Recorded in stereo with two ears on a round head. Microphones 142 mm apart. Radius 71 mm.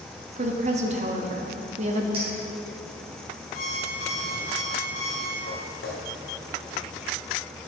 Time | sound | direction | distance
0.4 | a woman speaking | 45° right (ahead or behind) | 1.0 m
2.1 | a clink | 35° right (ahead or behind) | 3.5 m
3.5 | an alarm clock | 55° left (ahead or behind) | 2.5 m
5.5 | footsteps | 70° left (ahead or behind) | 2 m